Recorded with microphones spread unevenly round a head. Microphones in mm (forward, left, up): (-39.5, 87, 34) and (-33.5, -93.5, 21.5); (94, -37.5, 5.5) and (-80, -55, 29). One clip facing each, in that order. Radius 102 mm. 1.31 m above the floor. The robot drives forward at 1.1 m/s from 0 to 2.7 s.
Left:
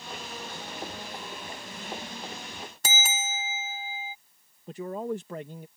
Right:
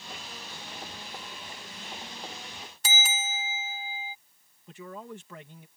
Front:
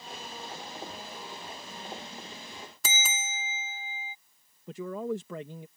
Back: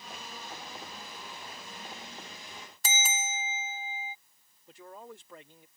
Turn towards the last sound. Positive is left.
turn(degrees=35)